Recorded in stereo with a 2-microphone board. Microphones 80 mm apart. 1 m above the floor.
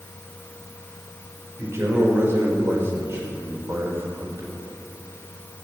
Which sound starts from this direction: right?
A man speaking, at 1.6 s.